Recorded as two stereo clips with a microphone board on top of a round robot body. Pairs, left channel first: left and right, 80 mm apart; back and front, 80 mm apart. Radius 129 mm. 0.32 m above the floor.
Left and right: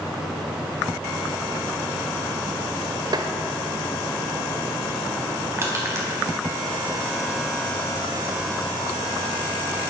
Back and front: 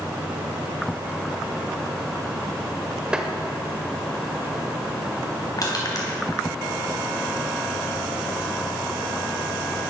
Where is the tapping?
80° right, 1.4 m.